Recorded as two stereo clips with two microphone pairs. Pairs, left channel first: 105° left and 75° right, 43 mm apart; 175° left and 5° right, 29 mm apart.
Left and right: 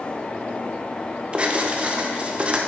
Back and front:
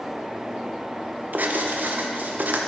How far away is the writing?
About 0.6 m.